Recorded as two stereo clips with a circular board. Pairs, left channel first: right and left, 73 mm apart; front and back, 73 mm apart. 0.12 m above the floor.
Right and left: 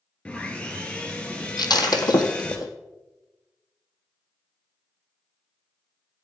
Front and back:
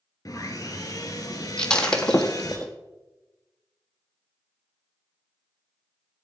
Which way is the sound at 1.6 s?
80° right.